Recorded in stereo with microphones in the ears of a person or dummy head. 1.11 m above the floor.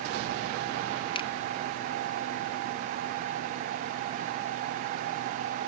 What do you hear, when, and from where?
1.1 s a finger snap: 20° left (ahead or behind)